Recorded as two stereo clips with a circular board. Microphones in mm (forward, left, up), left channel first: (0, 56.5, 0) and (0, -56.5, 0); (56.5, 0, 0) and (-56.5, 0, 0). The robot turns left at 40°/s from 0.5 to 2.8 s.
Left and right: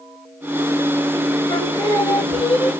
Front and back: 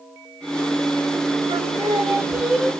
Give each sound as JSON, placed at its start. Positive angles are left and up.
{"t": 1.5, "sound": "singing", "azimuth_deg": 140, "distance_m": 1.3}